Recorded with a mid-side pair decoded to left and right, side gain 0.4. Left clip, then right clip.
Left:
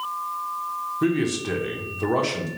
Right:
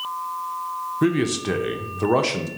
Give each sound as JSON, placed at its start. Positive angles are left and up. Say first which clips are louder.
{"t": 1.0, "sound": "a man speaking", "louder": "right 3 dB", "azimuth_deg": -35, "distance_m": 0.8}